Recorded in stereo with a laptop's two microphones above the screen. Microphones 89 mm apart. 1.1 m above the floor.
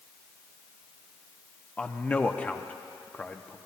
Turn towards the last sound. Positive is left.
turn(degrees=15)  # may be behind; listen again after turning